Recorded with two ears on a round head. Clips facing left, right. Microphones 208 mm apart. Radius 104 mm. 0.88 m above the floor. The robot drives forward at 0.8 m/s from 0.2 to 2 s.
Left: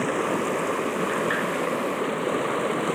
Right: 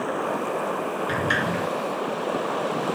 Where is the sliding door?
60° right (ahead or behind); by 1.7 s 65° right (ahead or behind).